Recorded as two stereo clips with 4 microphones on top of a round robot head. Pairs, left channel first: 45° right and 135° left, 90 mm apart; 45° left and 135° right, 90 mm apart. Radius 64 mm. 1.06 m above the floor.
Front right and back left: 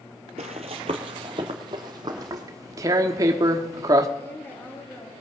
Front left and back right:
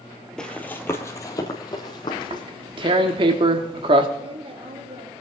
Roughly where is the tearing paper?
Behind.